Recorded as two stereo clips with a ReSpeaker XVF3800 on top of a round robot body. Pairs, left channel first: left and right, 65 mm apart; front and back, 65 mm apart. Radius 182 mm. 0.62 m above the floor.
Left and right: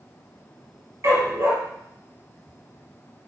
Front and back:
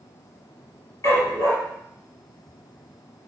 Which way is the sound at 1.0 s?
50° right.